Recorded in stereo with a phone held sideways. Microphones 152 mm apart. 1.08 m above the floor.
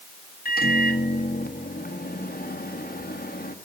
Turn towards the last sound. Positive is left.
turn(degrees=80)